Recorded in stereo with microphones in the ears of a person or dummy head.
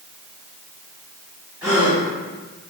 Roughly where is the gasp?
Centre.